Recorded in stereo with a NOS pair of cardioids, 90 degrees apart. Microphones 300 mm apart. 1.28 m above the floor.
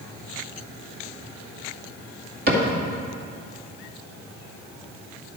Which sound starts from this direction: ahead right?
A cupboard door, at 2.5 s.